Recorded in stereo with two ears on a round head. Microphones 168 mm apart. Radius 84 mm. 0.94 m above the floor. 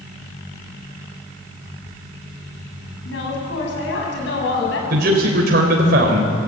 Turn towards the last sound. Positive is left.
turn(degrees=-55)  # may be behind; listen again after turning